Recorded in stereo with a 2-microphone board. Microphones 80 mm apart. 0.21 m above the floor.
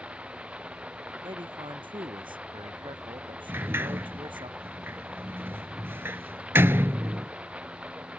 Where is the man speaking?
80° right.